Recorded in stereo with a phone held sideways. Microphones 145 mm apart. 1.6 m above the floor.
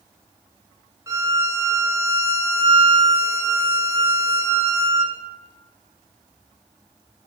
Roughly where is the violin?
Centre.